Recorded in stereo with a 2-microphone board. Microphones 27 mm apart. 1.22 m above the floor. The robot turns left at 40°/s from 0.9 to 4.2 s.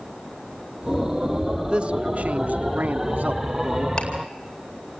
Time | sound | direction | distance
1.7 | a man speaking | 30° right | 1.2 m
4.0 | ticking | 30° left (ahead or behind) | 4 m